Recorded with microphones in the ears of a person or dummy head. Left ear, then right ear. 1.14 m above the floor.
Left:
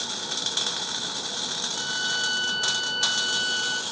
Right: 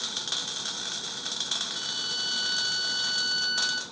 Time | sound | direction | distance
1.7 | a violin | 35° right (ahead or behind) | 2.5 m